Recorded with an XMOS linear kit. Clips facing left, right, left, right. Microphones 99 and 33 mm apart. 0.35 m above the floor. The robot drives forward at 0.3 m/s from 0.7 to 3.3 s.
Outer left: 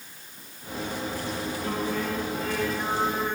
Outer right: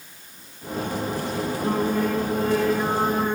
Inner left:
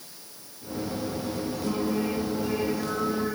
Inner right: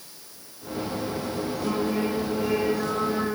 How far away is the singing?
About 7.5 m.